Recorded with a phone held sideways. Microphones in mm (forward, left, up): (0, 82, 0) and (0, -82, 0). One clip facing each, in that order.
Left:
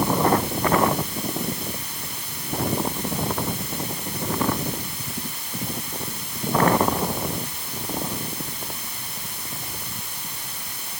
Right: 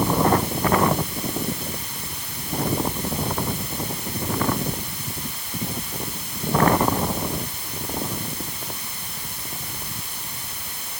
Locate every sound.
Only background noise.